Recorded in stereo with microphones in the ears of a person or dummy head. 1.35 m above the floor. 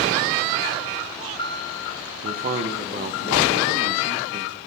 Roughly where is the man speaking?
Right.